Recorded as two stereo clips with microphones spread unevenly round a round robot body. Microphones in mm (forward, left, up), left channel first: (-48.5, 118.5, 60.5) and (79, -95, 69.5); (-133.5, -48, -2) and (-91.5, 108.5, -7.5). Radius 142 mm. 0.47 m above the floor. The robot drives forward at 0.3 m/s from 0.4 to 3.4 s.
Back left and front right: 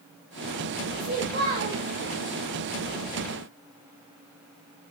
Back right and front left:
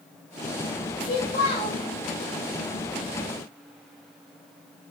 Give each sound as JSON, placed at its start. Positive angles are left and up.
{"t": 1.0, "sound": "a child speaking", "azimuth_deg": -105, "distance_m": 1.6}